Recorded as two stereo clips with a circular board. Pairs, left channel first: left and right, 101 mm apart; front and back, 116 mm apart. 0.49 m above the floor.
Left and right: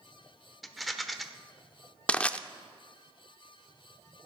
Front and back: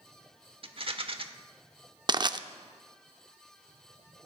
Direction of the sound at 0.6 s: Straight behind.